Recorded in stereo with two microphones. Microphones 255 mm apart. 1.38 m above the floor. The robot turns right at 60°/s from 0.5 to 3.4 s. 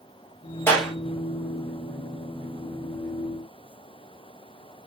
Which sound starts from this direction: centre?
A clap, at 0.7 s.